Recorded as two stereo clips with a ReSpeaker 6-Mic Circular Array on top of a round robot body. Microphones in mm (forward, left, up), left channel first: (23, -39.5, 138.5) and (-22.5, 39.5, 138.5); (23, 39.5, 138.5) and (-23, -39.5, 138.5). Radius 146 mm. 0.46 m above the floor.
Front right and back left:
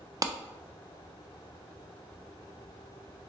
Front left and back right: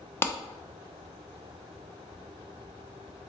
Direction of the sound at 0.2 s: 110° left.